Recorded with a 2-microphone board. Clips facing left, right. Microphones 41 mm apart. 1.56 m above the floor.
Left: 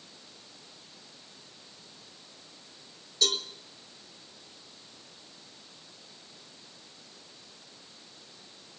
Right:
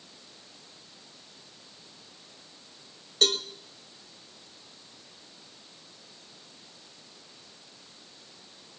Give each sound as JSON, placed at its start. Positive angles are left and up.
{"t": 3.2, "sound": "a cowbell", "side_deg": -50, "distance_m": 2.0}